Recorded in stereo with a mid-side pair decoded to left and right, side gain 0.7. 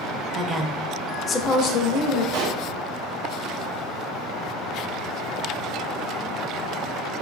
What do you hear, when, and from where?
0.3 s a woman speaking: 25° right, 0.6 m; by 2.2 s 60° left, 0.9 m
2.3 s a pop: 65° right, 0.8 m